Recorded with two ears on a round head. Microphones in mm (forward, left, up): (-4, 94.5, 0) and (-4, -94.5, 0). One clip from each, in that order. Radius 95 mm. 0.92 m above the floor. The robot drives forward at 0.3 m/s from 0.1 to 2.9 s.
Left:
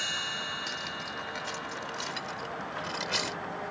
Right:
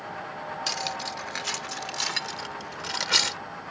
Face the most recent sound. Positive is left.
turn(degrees=-50)  # may be behind; listen again after turning